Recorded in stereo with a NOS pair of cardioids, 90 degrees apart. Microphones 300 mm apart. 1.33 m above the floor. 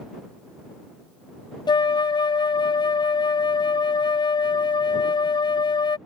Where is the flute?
15° left.